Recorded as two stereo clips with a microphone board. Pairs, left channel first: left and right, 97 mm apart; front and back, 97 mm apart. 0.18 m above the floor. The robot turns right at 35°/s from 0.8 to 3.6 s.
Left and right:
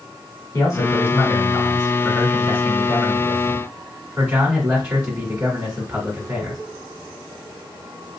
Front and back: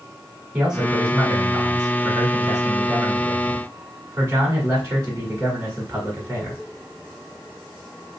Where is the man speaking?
105° left, 1.4 m; by 6.6 s 155° right, 1.4 m.